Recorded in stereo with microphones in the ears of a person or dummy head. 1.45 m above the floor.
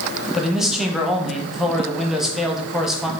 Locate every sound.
0.3 s a man speaking: 5° right (ahead or behind), 0.9 m